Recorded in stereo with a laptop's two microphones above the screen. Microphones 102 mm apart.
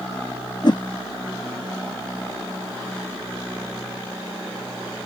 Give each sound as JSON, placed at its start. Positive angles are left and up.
{"t": 0.6, "sound": "a whoosh", "side_deg": 45}